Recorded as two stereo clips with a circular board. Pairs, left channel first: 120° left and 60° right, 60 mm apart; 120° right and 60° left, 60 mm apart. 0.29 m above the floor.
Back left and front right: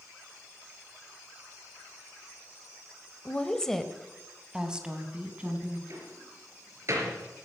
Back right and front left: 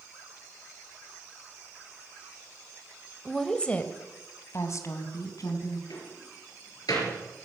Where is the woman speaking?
155° left, 1.1 m; by 5.8 s 130° right, 2.5 m.